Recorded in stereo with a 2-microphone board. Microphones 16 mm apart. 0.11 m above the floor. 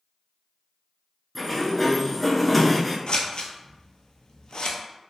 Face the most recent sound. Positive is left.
turn(degrees=70)  # may be behind; listen again after turning